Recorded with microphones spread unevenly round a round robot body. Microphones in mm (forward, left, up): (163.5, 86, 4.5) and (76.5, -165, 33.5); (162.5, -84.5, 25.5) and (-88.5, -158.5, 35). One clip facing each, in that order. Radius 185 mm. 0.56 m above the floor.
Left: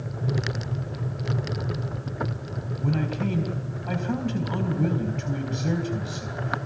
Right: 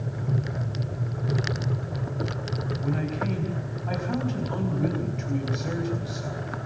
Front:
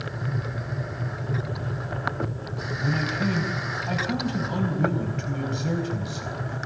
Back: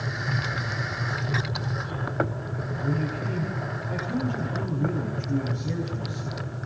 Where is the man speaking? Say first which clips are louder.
Left 3 dB, front 2 dB; 25° left, 4.5 m.